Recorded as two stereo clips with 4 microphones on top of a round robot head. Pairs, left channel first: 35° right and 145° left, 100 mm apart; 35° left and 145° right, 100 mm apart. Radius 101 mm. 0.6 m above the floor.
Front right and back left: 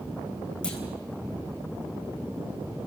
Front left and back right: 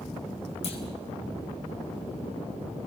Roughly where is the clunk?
Ahead left.